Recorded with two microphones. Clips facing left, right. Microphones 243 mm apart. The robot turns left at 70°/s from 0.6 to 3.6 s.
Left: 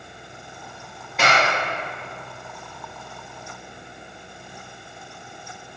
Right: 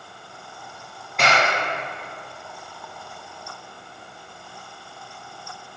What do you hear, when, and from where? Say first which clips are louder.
1.2 s a clap: even; centre (ahead or behind), 3.5 m; by 1.5 s 25° left (ahead or behind), 3.5 m